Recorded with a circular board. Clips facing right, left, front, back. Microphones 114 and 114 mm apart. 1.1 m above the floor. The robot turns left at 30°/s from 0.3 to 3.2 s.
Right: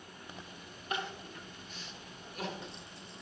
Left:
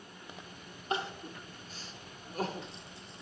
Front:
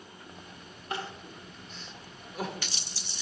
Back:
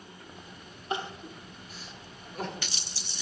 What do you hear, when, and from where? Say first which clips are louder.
0.9 s crying: left 3 dB, back 3 dB; 125° left, 0.8 m; by 3.2 s 55° left, 0.8 m